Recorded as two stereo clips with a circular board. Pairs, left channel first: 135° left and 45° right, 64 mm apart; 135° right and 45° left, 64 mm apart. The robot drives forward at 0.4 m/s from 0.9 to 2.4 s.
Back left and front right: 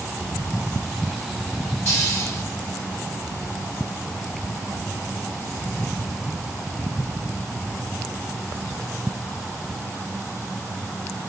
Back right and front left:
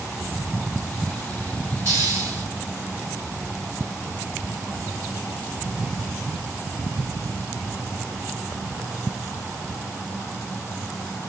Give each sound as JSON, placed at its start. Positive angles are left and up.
{"t": 1.9, "sound": "a hiss", "azimuth_deg": 90, "distance_m": 3.5}